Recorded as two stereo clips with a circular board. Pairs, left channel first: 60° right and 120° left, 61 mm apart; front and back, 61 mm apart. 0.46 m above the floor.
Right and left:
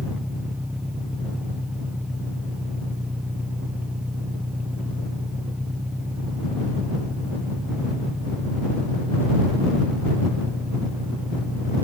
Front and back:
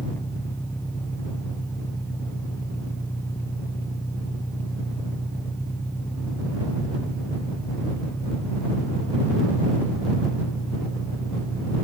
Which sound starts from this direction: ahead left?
An engine running, at 0.0 s.